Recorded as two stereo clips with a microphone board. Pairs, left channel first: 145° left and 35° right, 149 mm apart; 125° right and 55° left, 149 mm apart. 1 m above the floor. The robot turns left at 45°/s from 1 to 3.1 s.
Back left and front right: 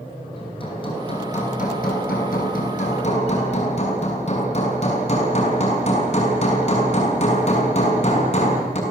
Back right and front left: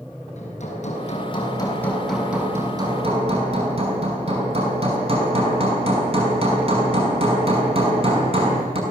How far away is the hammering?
About 6.5 m.